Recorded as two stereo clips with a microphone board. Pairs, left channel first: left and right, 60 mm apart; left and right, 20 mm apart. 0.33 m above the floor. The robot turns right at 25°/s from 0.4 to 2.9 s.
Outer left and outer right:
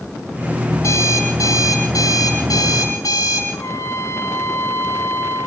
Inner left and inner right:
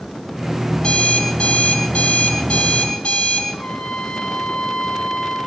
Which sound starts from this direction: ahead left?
An alarm clock, at 0.8 s.